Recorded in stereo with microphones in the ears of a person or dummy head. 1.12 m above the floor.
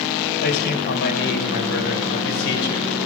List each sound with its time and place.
0.4 s a man speaking: 50° left (ahead or behind), 6 m; by 2.9 s 70° left (ahead or behind), 5.5 m